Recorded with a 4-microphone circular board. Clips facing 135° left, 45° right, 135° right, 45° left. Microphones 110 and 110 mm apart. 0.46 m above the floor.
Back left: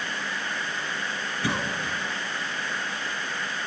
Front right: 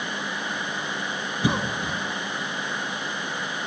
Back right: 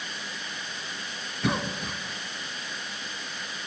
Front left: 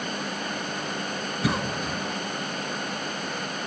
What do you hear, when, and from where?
1.4 s a cough: 35° right, 0.7 m